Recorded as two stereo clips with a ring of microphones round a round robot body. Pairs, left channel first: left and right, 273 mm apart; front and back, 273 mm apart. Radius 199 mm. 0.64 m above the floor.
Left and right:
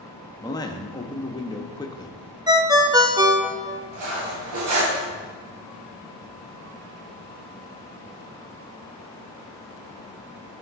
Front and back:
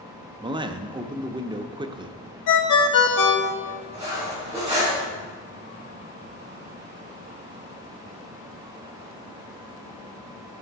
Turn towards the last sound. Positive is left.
turn(degrees=-100)